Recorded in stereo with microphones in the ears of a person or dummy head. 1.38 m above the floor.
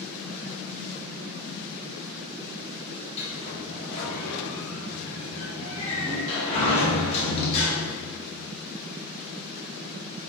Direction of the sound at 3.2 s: 35° left (ahead or behind).